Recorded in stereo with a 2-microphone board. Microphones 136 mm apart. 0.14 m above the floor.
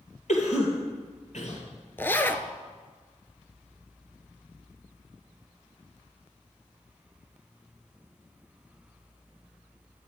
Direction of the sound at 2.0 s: 15° left (ahead or behind).